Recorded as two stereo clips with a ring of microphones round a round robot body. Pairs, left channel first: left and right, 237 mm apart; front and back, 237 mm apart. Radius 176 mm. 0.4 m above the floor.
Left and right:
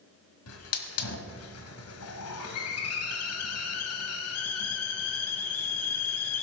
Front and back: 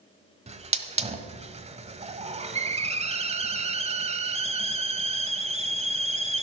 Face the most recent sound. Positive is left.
turn(degrees=115)